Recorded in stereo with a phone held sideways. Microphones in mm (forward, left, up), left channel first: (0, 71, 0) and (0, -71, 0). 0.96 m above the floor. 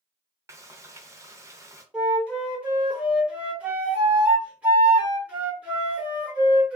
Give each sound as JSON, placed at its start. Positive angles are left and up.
{"t": 0.5, "sound": "frying", "side_deg": -20, "distance_m": 0.6}
{"t": 1.9, "sound": "a flute", "side_deg": -10, "distance_m": 1.0}